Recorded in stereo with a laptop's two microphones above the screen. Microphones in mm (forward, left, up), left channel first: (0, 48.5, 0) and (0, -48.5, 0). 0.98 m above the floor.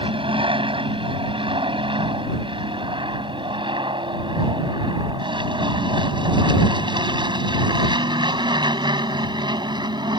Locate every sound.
0.0 s an aircraft: 65° right (ahead or behind); by 10.2 s 50° right (ahead or behind)